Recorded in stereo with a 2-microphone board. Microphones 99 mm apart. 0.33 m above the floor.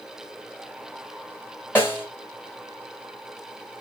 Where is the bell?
I don't hear a bell.